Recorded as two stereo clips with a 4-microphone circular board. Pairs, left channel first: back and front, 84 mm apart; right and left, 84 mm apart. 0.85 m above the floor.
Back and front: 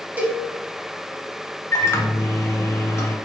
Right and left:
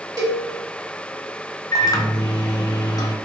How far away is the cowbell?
About 1.0 m.